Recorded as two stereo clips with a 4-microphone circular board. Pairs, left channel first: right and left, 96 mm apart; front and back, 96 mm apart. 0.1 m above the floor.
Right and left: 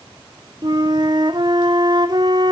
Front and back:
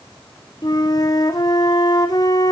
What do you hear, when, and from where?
0.6 s a flute: 50° left, 1.1 m